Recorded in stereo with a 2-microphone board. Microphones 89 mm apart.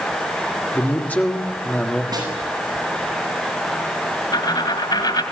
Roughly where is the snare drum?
Right.